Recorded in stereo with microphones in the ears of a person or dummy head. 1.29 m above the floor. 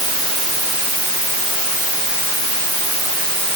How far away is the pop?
No pop in this recording.